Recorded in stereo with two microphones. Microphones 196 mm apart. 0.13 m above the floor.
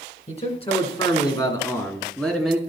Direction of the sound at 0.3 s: 35° left (ahead or behind).